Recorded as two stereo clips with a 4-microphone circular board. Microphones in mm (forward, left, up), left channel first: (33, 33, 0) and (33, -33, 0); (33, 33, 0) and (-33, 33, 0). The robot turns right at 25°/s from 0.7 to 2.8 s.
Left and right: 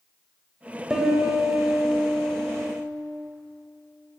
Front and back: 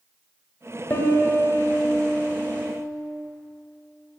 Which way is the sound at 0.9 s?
15° right.